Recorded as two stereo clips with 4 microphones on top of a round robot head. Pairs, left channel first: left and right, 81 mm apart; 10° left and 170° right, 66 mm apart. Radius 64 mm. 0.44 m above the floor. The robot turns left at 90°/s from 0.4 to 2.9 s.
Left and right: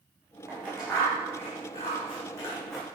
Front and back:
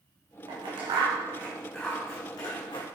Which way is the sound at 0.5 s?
150° right.